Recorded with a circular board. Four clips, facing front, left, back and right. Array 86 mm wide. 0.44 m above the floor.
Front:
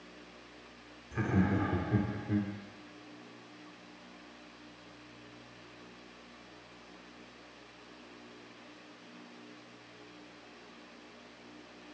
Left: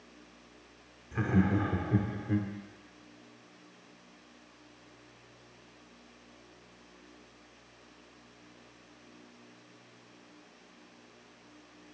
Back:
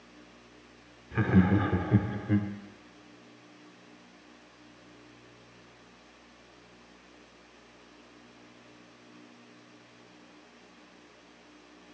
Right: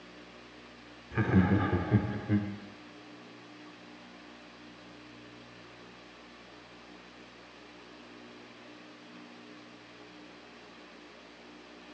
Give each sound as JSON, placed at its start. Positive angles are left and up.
{"t": 1.1, "sound": "laughter", "azimuth_deg": -145, "distance_m": 0.8}